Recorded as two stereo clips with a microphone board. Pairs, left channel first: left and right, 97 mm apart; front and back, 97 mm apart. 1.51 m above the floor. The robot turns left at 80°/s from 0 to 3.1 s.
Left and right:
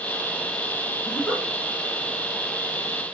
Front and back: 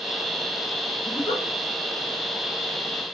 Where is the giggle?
30° left, 2.0 m; by 1.4 s straight ahead, 2.0 m.